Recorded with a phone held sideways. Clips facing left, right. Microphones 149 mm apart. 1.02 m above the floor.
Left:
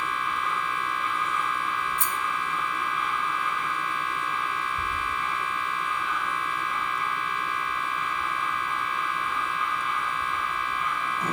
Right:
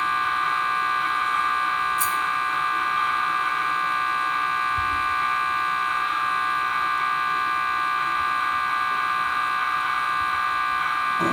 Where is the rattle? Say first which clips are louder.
Right 4 dB; 60° left (ahead or behind), 0.9 m.